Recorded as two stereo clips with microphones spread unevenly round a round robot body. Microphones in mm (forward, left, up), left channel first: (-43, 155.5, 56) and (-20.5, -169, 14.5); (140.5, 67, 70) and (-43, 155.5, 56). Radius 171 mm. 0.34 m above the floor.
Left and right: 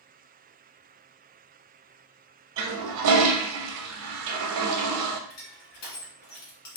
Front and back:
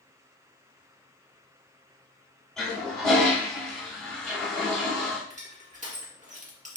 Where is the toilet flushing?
115° right, 0.7 m.